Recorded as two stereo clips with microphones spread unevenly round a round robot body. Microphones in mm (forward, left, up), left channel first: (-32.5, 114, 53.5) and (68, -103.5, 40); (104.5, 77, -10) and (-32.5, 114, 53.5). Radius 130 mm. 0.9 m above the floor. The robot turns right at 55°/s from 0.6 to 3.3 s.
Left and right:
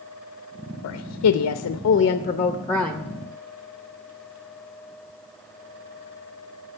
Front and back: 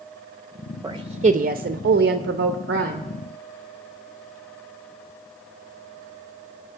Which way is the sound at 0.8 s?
90° left.